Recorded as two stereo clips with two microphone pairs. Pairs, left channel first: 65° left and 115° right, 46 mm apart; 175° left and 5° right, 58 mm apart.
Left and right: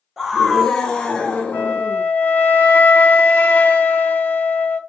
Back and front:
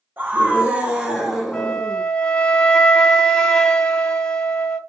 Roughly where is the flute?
Left.